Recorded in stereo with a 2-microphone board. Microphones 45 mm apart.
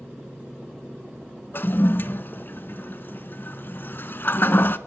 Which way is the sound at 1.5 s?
50° left (ahead or behind).